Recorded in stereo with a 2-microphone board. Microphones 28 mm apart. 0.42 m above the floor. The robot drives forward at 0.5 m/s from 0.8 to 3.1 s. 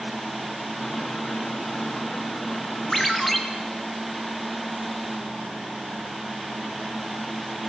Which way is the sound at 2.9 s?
10° left (ahead or behind).